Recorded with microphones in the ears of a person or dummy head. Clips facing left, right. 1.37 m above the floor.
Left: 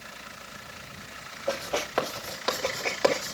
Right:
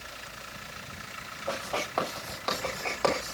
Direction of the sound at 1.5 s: 20° left (ahead or behind).